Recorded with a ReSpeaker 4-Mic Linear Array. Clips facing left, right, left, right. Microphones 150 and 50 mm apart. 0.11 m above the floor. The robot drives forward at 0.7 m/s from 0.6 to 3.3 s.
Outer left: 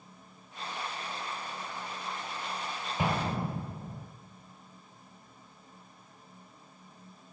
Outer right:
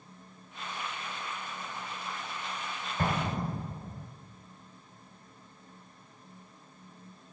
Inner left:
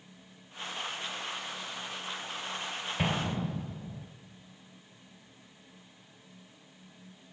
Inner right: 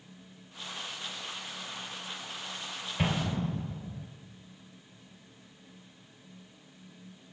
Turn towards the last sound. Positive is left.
turn(degrees=5)  # may be behind; listen again after turning